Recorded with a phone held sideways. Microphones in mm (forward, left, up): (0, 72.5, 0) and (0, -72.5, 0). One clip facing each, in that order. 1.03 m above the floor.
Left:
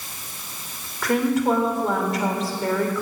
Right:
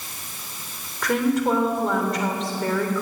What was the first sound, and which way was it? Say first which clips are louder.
A woman speaking: left 1 dB; centre (ahead or behind).